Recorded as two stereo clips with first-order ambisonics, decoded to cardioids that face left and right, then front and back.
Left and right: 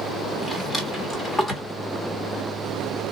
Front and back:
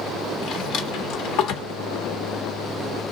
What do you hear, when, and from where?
0.4 s a drawer: 15° left, 1.1 m